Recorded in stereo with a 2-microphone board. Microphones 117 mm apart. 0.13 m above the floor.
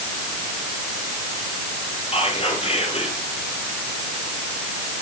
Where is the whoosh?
No whoosh in this recording.